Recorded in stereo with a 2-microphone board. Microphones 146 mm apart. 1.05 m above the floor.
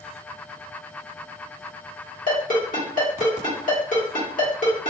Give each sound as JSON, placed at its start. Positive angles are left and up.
{"t": 2.3, "sound": "a ringtone", "side_deg": 65, "distance_m": 1.4}